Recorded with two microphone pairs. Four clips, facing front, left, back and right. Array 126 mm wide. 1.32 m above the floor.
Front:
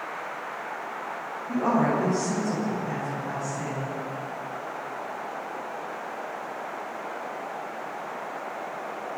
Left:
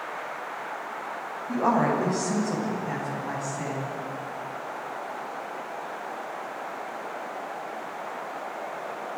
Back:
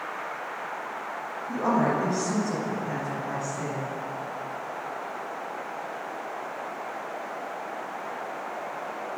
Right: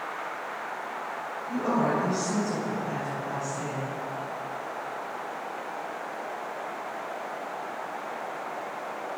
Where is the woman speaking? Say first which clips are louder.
Left 3 dB, front 1 dB; 90° left, 9.5 m.